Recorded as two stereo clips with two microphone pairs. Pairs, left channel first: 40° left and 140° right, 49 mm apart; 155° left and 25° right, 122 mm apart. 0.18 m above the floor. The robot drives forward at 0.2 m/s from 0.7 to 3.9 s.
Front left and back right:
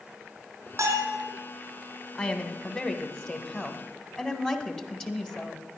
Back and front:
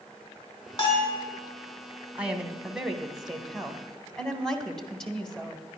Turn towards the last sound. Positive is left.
turn(degrees=90)